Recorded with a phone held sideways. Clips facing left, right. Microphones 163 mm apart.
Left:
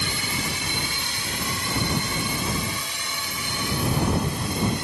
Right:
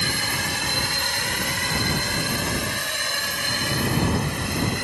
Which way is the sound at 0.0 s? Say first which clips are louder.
Right 1 dB; 65° right (ahead or behind).